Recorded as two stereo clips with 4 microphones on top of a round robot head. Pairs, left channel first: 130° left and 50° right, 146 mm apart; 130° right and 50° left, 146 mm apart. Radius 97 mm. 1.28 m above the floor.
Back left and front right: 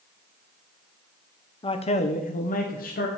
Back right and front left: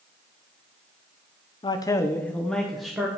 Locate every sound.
1.6 s a man speaking: straight behind, 0.8 m; by 3.1 s 135° left, 1.5 m